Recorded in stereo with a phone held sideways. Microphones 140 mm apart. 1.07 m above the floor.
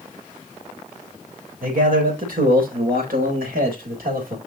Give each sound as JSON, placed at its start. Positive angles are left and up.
{"t": 1.6, "sound": "a man speaking", "side_deg": -75, "distance_m": 4.0}